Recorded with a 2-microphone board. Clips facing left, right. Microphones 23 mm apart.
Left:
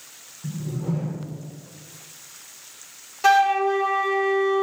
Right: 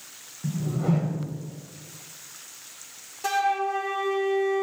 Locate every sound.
0.4 s a whoosh: 75° right (ahead or behind), 0.5 m
3.2 s a flute: 35° left (ahead or behind), 0.6 m